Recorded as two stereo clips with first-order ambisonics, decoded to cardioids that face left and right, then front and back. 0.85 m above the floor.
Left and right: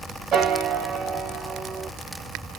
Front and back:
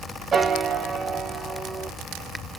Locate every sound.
0.3 s a piano: 120° right, 0.8 m